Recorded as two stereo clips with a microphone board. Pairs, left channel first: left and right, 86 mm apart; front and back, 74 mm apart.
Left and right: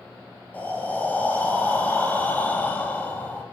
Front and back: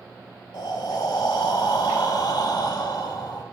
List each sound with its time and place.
0.5 s breathing: 20° left, 0.7 m